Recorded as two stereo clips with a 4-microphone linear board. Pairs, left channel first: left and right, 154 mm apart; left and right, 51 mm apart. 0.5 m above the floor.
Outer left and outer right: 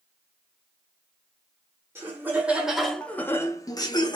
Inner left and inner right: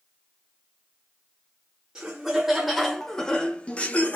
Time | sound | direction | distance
1.9 | laughter | 15° right (ahead or behind) | 0.9 m